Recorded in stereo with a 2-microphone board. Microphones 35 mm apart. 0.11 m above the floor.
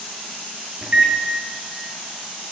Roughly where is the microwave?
Right.